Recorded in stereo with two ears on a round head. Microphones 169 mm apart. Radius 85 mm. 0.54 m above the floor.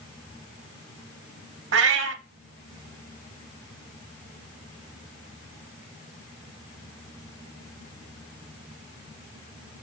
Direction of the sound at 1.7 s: 70° right (ahead or behind).